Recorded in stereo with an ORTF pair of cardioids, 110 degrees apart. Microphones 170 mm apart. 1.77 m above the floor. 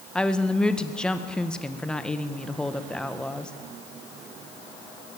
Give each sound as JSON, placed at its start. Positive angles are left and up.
{"t": 0.1, "sound": "a woman speaking", "azimuth_deg": 5, "distance_m": 1.6}